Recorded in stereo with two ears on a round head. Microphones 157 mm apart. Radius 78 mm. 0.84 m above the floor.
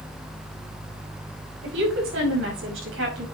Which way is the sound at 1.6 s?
85° right.